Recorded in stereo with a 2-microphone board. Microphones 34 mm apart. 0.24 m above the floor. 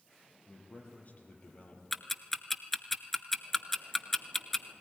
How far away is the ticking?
About 0.8 m.